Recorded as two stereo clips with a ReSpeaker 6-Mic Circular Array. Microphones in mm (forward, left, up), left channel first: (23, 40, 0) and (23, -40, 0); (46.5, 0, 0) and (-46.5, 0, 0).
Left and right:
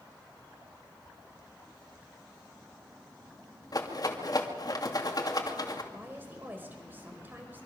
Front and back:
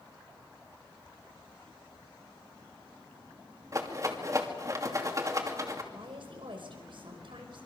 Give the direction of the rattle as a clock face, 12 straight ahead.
8 o'clock.